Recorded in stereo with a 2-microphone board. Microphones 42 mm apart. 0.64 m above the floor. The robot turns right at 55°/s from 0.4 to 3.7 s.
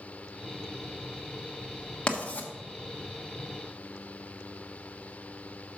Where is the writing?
20° left (ahead or behind), 1.1 m; by 2.5 s 35° left (ahead or behind), 1.1 m.